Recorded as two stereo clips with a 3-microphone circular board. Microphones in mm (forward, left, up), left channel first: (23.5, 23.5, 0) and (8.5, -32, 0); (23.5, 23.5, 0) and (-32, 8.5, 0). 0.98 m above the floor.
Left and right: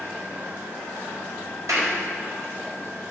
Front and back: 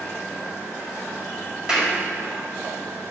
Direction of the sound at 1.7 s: 90° right.